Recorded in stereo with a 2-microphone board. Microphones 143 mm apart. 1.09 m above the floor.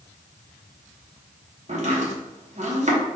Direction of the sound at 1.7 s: 55° right (ahead or behind).